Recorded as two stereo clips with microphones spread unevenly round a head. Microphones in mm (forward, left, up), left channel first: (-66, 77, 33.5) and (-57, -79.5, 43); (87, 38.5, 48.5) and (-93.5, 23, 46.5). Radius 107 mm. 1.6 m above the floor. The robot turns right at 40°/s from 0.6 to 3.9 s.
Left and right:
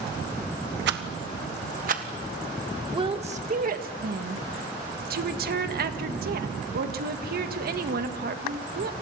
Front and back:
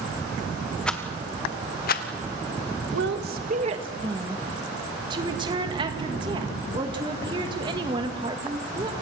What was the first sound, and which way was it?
A rattle, 80° right.